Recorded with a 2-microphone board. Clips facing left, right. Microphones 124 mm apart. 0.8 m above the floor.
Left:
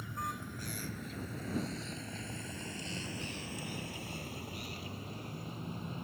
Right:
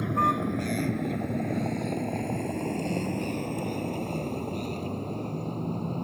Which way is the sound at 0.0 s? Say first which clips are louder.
Right 16 dB; 75° right (ahead or behind).